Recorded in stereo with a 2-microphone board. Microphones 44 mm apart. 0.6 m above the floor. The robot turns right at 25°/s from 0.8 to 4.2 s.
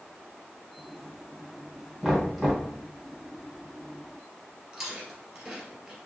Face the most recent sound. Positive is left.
turn(degrees=-5)  # may be behind; listen again after turning